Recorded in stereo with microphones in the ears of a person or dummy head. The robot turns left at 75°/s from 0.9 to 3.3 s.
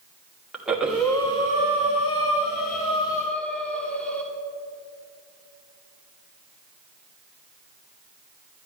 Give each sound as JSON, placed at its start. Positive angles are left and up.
{"t": 0.5, "sound": "breathing", "azimuth_deg": 180, "distance_m": 1.6}